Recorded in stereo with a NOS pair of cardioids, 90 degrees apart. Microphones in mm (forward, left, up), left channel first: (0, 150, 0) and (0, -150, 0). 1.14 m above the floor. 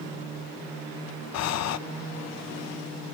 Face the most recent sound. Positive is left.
turn(degrees=60)